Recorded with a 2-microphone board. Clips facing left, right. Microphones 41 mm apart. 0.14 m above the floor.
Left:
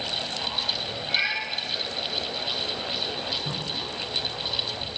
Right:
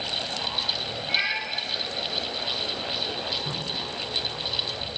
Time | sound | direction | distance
1.1 | a cat meowing | 15° right (ahead or behind) | 3 m
3.4 | dripping | 5° left (ahead or behind) | 2.5 m